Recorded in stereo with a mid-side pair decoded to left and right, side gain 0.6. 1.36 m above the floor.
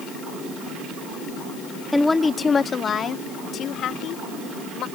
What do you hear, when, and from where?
1.9 s a woman speaking: 5° left; by 4.8 s 60° left